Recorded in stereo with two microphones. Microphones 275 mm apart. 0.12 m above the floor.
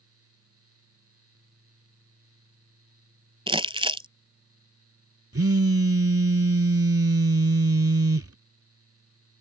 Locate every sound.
3.5 s crumpling: 20° right (ahead or behind)
5.3 s a phone buzzing: 55° right (ahead or behind)